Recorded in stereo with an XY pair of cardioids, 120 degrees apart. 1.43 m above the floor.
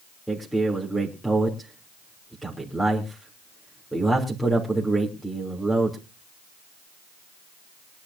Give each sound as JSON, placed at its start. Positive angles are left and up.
{"t": 0.3, "sound": "a man speaking", "azimuth_deg": 0, "distance_m": 3.0}